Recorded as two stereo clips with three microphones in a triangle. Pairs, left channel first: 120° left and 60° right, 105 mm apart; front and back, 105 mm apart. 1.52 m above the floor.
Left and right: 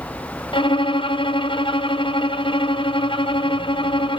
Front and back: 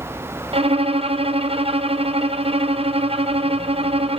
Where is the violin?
155° left, 0.7 m.